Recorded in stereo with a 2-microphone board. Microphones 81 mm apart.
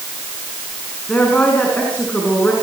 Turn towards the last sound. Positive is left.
turn(degrees=15)  # may be behind; listen again after turning